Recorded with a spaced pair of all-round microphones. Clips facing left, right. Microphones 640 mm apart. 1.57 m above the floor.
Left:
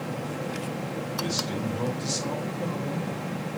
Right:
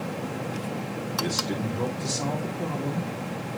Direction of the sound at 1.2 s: 70° right (ahead or behind).